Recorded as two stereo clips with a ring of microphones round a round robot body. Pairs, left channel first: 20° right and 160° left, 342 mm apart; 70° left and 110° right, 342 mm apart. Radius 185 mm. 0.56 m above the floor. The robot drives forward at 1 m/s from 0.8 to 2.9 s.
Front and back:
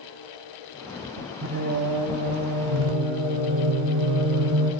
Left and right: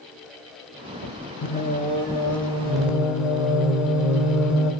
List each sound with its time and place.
1.4 s singing: 110° left, 0.9 m; by 4.7 s 160° left, 1.9 m